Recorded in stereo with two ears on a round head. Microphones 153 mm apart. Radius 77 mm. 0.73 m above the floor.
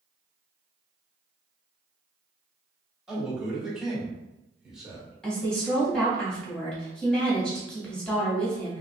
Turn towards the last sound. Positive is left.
turn(degrees=5)  # may be behind; listen again after turning